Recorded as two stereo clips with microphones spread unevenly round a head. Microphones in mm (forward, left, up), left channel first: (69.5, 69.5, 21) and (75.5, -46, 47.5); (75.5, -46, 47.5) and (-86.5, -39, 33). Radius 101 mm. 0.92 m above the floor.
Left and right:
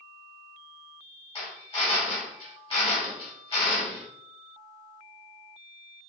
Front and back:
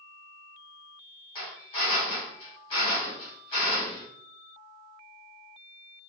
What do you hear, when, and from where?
1.4 s a drill: 60° left, 3 m